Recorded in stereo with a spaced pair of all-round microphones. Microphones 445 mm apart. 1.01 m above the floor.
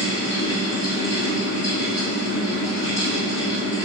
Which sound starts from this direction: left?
A fan, at 0.0 s.